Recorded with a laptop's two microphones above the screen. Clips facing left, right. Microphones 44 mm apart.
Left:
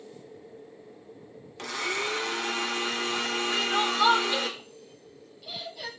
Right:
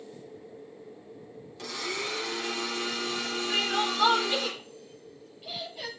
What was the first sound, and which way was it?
A blender, 55° left (ahead or behind).